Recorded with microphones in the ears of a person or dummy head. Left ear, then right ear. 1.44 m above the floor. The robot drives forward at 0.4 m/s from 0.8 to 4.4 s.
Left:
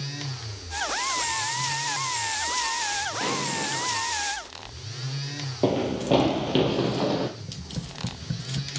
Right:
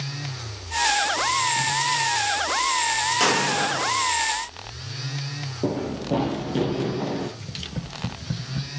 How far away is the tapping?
About 0.6 m.